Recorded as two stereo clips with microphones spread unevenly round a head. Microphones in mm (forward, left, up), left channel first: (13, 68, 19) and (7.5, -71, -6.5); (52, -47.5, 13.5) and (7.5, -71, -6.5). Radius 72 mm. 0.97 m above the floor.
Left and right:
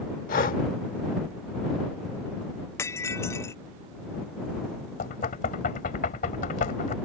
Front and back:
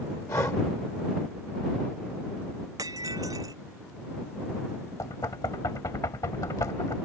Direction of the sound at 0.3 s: 65° left.